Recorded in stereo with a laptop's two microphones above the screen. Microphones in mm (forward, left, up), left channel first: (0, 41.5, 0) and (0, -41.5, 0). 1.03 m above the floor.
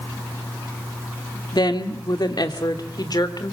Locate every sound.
1.5 s a woman speaking: 60° left (ahead or behind), 2.0 m; by 3.5 s 55° left (ahead or behind), 3 m